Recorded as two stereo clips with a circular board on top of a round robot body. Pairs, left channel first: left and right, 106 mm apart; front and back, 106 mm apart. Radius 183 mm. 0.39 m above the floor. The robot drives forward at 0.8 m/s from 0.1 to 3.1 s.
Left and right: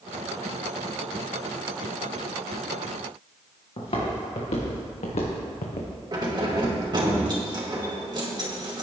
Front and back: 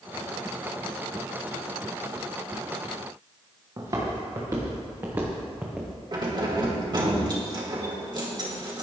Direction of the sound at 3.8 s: 125° left.